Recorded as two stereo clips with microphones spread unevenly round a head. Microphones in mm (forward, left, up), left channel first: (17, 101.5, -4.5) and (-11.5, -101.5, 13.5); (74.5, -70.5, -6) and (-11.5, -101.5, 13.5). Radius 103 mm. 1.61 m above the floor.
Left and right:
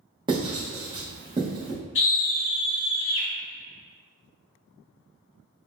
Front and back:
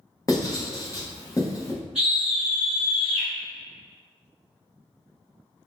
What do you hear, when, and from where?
0.3 s writing: 35° right, 1.1 m
1.9 s a scream: 115° left, 1.6 m